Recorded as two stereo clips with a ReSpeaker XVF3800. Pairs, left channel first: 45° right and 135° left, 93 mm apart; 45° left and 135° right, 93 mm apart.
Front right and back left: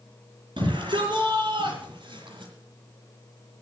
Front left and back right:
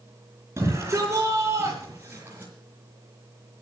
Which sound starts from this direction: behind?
A shout, at 0.6 s.